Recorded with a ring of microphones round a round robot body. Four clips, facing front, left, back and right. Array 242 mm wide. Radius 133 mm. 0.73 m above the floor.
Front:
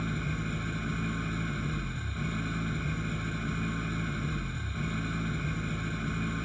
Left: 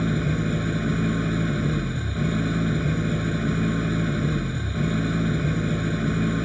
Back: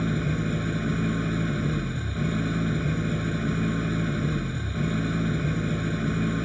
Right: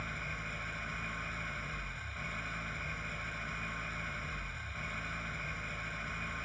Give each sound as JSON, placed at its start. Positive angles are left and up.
{"t": 0.0, "sound": "an engine running", "azimuth_deg": 120}